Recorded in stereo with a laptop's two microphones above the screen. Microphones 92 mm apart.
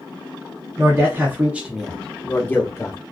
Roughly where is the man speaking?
Right.